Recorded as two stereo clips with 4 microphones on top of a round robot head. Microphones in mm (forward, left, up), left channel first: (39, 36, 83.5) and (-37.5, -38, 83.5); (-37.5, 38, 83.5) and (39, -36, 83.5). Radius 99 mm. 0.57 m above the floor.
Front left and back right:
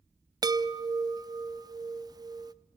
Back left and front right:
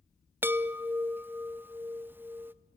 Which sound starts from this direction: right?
A chime, at 0.4 s.